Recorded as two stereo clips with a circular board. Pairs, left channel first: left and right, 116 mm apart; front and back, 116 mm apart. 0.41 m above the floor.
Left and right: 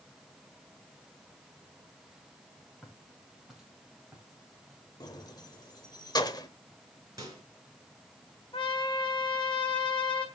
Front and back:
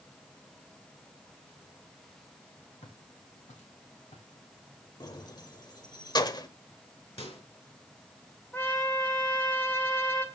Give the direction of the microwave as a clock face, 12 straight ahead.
1 o'clock.